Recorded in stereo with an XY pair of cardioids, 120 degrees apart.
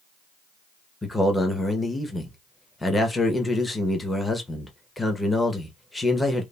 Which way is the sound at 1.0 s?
15° left.